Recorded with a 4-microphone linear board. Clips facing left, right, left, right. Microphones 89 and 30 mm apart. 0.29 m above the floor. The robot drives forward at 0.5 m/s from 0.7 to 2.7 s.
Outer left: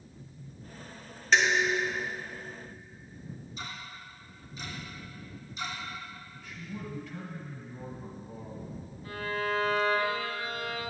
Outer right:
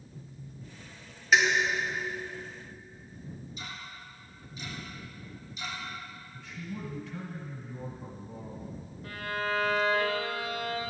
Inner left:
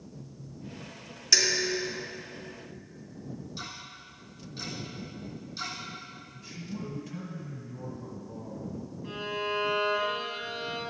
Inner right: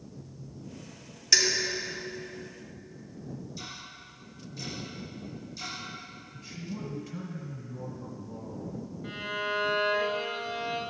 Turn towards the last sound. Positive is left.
turn(degrees=-70)  # may be behind; listen again after turning